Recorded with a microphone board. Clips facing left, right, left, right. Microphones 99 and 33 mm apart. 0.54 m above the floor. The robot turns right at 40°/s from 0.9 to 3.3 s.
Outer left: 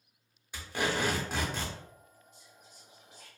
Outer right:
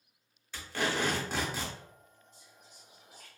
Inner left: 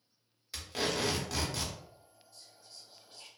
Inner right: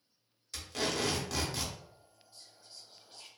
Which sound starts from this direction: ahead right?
Whispering, at 2.3 s.